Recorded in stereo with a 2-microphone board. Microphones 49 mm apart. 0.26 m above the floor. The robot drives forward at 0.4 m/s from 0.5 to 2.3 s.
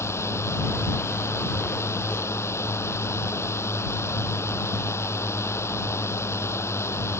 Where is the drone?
80° left; by 7.2 s 75° left (ahead or behind).